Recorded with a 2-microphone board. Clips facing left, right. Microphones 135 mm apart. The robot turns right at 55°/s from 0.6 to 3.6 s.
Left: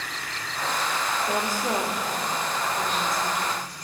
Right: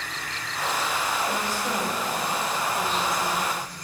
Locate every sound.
1.3 s a woman speaking: 115° left, 3 m; by 3.5 s 125° right, 3 m